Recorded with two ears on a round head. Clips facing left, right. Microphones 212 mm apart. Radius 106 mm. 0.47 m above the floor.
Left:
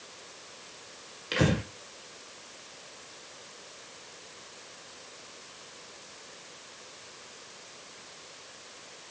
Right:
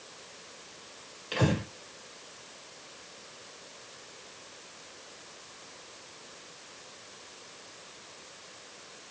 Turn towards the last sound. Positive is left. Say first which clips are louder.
# left 2 dB
turn(degrees=30)  # may be behind; listen again after turning